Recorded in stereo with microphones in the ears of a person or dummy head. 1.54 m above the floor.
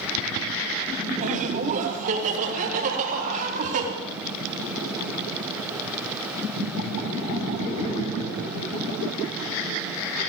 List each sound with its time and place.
1.2 s laughter: 40° right (ahead or behind), 2 m; by 3.9 s 50° right (ahead or behind), 3.5 m